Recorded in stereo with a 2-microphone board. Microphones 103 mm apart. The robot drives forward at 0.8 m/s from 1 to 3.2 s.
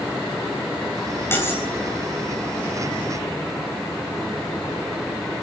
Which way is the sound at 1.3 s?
20° left (ahead or behind).